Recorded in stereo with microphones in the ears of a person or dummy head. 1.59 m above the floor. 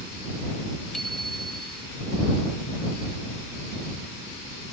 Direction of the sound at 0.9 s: 5° left (ahead or behind).